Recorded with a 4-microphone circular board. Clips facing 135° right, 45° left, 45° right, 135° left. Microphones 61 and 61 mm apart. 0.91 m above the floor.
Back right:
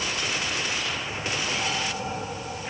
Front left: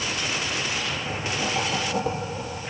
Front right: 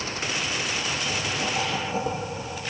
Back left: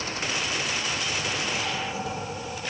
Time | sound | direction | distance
0.8 | writing | 15° left | 5.5 m